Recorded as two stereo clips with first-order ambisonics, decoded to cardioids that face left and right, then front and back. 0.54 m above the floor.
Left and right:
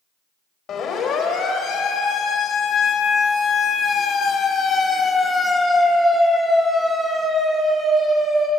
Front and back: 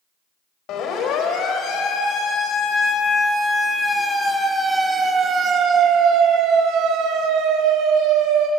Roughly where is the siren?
Ahead left.